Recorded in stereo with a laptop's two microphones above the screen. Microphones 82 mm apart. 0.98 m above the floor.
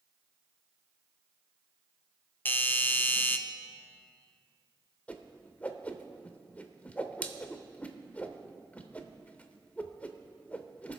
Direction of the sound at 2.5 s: 25° left (ahead or behind).